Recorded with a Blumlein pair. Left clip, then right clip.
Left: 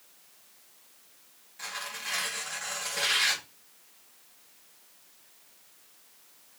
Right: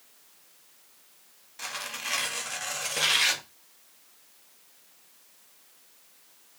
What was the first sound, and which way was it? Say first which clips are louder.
Tearing paper: right 2 dB; 60° right.